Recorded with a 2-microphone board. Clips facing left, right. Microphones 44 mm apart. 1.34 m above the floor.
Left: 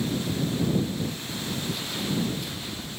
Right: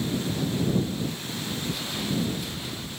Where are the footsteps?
Centre (ahead or behind).